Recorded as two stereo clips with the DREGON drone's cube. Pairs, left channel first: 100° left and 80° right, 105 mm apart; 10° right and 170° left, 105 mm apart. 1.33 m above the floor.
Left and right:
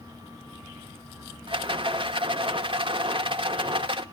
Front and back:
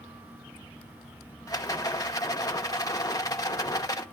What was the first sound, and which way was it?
A rattle, 60° right.